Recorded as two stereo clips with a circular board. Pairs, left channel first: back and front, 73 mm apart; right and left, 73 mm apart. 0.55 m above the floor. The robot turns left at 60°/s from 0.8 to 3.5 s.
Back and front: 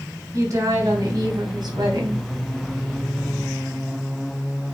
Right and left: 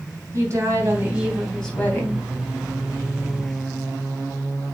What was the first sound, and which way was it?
A woman speaking, 40° left.